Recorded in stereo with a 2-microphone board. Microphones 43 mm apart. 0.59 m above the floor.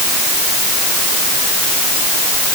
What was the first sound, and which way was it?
Only background noise.